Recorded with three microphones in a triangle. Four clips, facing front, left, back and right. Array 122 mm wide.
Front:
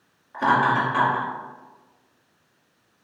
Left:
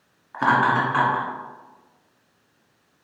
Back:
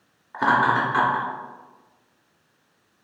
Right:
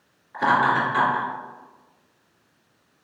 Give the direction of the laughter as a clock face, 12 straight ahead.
8 o'clock.